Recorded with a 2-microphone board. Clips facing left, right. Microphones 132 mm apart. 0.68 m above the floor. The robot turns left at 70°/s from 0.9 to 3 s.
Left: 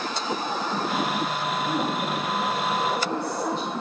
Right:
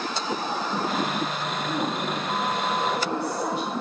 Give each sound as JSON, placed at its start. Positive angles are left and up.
{"t": 1.6, "sound": "a woman speaking", "azimuth_deg": 80, "distance_m": 3.5}